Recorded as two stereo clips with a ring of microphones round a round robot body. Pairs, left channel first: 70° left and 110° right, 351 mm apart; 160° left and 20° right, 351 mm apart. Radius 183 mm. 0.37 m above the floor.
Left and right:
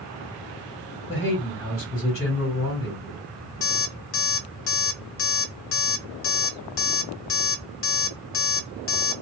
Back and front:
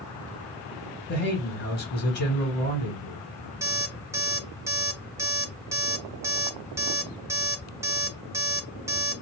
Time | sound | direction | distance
1.1 | a man speaking | 105° left | 2 m
3.6 | an alarm clock | 55° left | 0.7 m